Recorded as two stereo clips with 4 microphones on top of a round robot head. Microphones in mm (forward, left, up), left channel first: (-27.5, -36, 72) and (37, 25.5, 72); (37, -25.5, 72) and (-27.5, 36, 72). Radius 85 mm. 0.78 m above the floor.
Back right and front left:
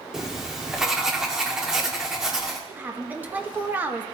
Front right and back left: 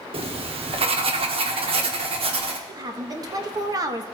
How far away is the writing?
About 1.4 m.